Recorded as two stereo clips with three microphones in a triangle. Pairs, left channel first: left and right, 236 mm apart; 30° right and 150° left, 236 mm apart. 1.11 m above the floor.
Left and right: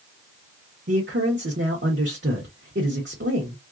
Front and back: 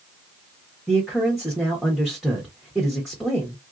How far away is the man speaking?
About 1.0 m.